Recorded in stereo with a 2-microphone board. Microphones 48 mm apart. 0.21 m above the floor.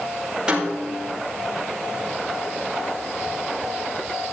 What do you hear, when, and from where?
0.5 s a snare drum: 20° right (ahead or behind), 7.5 m